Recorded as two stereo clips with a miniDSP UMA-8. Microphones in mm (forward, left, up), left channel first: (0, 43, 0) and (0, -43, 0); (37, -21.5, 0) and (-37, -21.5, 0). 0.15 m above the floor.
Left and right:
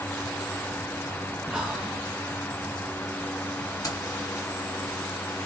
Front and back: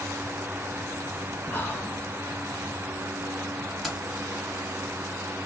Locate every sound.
1.5 s whispering: 15° right, 1.3 m
3.8 s keys jangling: 90° left, 1.4 m